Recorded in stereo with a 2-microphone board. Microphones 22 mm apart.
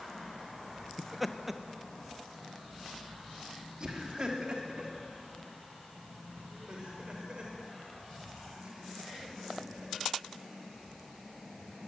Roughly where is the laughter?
Centre.